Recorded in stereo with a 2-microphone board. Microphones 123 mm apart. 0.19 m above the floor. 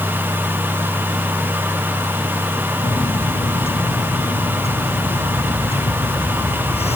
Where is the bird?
55° left (ahead or behind).